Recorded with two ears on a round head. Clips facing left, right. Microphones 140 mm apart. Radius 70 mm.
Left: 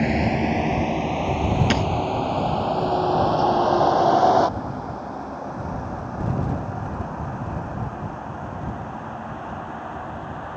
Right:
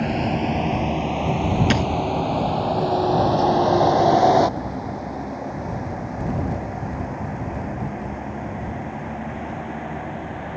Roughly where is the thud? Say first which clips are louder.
Right 1 dB; centre.